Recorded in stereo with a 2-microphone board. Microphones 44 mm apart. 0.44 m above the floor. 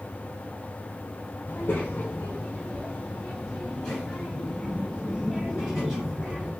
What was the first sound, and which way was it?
A child speaking, 60° left (ahead or behind).